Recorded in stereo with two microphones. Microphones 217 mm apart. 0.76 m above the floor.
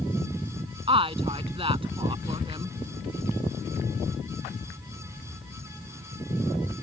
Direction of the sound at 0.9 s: 25° right (ahead or behind).